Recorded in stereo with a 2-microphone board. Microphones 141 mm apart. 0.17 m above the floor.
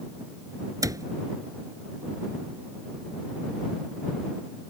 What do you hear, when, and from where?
0.8 s a cupboard door: 25° right (ahead or behind)